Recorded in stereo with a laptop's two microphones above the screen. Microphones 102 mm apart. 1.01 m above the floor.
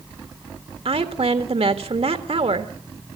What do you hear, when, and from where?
0.8 s a woman speaking: 75° right (ahead or behind), 1.6 m